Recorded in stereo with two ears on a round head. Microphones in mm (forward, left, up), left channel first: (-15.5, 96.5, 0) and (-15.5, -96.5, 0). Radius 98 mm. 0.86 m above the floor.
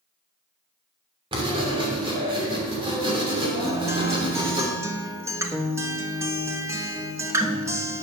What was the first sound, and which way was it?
Writing, 25° right (ahead or behind).